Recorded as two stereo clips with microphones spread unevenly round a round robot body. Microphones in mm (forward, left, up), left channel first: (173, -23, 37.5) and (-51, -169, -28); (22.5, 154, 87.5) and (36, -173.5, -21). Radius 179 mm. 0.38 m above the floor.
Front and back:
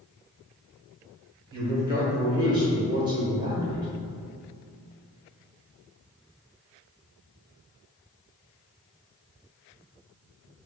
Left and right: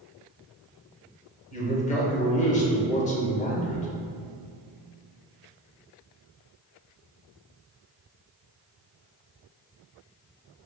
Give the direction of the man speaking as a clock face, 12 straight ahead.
6 o'clock.